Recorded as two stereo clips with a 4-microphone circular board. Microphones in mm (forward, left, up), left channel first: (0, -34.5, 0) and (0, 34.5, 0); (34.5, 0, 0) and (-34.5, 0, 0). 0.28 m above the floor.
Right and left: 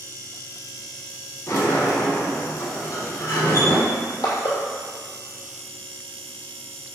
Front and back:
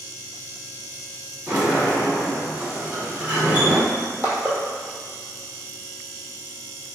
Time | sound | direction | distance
1.5 | a sliding door | 115° right | 1.8 m
3.9 | crushing | 115° right | 1.7 m